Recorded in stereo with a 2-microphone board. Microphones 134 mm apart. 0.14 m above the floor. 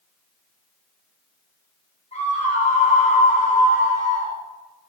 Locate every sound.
2.1 s a scream: 50° left (ahead or behind), 7.5 m; by 4.4 s 65° left (ahead or behind), 8 m